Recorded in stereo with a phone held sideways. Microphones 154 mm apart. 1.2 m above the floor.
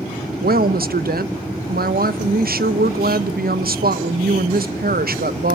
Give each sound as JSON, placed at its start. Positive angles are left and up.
{"t": 0.4, "sound": "a woman speaking", "side_deg": -75, "distance_m": 0.7}